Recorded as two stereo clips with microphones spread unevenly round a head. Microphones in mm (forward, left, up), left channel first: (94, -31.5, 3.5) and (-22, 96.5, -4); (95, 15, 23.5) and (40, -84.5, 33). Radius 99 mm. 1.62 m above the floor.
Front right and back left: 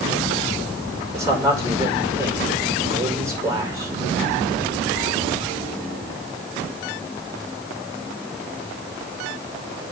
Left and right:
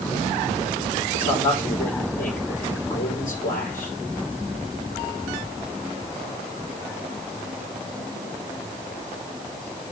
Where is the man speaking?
60° left, 5.5 m.